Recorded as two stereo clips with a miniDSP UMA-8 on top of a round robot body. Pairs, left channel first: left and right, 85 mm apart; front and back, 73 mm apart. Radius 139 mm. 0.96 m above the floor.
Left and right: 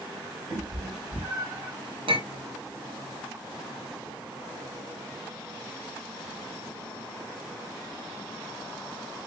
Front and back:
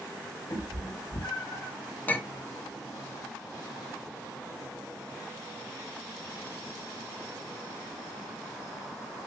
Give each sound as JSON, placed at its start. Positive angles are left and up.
{"t": 0.5, "sound": "a cat meowing", "azimuth_deg": -30, "distance_m": 1.8}
{"t": 2.1, "sound": "a clink", "azimuth_deg": -70, "distance_m": 1.0}